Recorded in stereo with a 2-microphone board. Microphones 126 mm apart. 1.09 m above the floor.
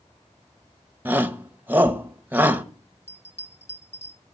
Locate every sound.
1.1 s a shout: 15° right (ahead or behind), 0.9 m
3.1 s a bell: 55° left (ahead or behind), 1.4 m